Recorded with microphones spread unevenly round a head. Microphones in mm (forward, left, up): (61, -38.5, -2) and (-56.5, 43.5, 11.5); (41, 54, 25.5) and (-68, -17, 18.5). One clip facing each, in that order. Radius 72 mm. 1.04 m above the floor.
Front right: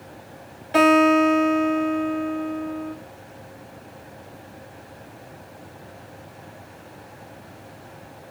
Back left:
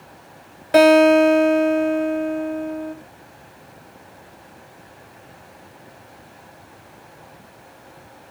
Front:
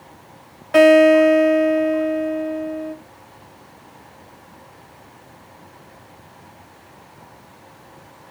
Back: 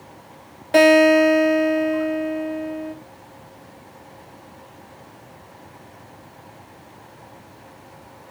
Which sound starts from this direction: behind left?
A guitar, at 0.7 s.